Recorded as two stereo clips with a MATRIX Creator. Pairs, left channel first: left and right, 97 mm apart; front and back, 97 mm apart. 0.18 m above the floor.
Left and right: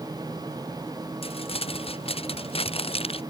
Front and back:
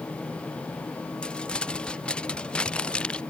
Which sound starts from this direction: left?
Crumpling, at 1.2 s.